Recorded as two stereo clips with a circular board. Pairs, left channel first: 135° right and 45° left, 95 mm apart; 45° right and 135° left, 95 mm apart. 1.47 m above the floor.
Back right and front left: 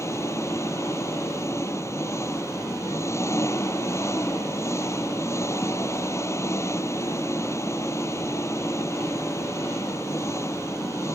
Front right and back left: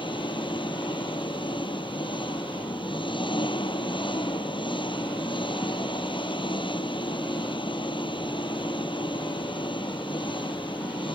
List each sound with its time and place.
0.0 s an engine running: 75° right